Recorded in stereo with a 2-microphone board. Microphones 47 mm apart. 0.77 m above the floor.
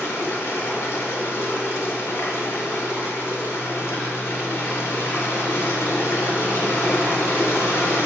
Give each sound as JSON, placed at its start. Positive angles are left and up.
{"t": 0.0, "sound": "running water", "side_deg": 70, "distance_m": 0.7}